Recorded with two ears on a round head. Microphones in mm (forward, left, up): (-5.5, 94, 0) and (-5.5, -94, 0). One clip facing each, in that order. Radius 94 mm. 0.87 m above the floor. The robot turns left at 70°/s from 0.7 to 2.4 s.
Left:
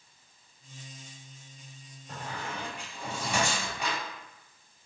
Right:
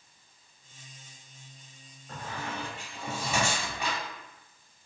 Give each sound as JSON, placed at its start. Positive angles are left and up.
{"t": 2.1, "sound": "a squeak", "side_deg": 20, "distance_m": 1.8}